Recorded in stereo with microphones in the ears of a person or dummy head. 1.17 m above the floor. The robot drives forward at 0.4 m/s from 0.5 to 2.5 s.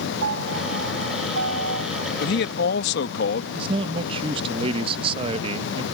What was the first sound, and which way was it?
A piano, 70° right (ahead or behind).